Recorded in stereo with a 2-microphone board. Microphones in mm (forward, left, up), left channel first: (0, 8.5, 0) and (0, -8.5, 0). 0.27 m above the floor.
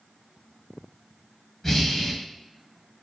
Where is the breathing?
25° left (ahead or behind), 0.9 m.